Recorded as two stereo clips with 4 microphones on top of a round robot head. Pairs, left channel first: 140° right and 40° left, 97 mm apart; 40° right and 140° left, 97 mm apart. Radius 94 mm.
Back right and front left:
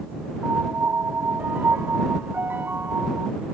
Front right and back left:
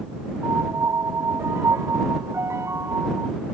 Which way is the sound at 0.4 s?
95° left.